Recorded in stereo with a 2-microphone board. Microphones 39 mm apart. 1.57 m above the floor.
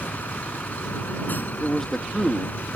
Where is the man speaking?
10° left (ahead or behind).